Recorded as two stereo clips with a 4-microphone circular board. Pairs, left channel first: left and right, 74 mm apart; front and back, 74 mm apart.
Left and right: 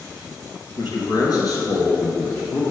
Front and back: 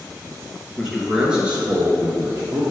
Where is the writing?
I don't hear writing.